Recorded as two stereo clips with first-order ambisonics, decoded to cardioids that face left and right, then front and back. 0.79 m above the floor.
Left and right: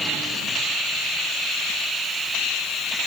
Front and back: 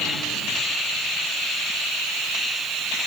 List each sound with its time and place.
Only background noise.